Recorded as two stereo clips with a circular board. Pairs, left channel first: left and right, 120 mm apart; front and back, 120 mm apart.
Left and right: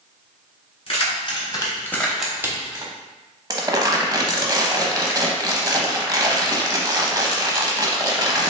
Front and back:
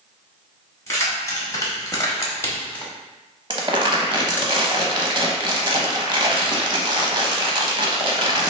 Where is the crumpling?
140° right, 0.7 m.